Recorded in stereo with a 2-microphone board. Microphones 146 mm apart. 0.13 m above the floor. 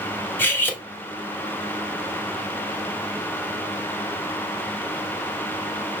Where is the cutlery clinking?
15° left (ahead or behind), 0.8 m.